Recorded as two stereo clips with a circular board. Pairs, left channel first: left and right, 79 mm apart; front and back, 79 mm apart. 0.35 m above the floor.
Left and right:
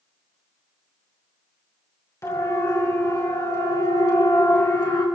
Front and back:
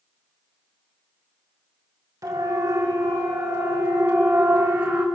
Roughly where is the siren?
Behind left.